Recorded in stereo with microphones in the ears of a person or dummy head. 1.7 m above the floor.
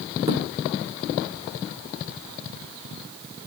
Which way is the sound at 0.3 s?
25° right (ahead or behind).